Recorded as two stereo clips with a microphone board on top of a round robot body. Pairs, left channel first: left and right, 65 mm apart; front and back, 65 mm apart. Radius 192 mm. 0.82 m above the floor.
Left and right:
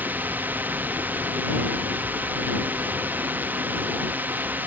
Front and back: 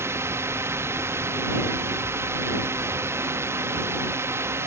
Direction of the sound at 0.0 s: 145° right.